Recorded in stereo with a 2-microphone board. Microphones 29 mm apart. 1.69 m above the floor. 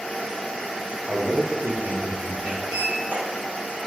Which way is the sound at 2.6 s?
70° right (ahead or behind).